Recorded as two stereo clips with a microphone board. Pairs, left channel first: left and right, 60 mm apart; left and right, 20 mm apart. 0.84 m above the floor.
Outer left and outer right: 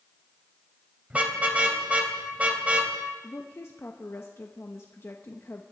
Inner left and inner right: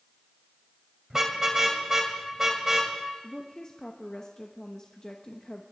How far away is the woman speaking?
About 0.9 m.